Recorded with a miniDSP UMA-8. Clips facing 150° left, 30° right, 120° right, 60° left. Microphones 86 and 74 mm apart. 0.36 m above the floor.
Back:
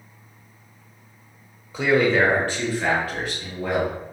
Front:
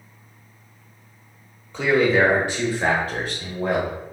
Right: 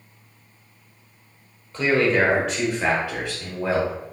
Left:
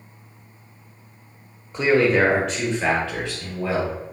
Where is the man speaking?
75° left, 0.8 m; by 4.0 s 60° right, 1.3 m.